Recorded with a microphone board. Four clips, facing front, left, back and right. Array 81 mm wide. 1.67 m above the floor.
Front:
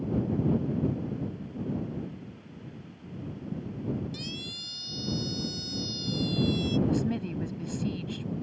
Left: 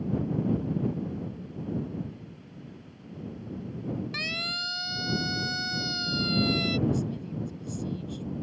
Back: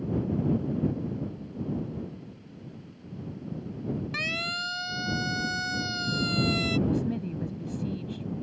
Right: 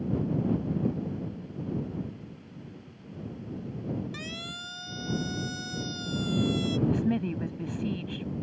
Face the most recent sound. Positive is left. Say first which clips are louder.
# right 4 dB, even
turn(degrees=-75)